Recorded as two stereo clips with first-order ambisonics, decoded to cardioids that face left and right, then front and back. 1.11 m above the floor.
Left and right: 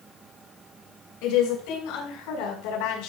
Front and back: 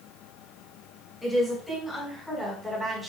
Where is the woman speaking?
85° left, 5.5 m; by 3.1 s 100° left, 4.5 m.